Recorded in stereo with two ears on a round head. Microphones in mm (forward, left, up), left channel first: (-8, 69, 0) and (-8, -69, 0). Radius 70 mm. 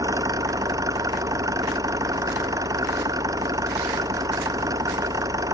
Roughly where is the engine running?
Right.